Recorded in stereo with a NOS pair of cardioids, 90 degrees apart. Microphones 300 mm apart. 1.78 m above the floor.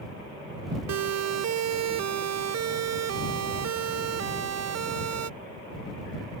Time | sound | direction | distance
0.9 | a siren | 65° right | ?